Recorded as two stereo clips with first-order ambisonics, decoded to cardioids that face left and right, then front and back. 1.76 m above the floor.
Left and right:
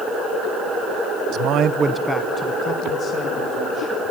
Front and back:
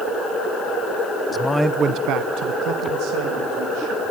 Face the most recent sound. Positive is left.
turn(degrees=145)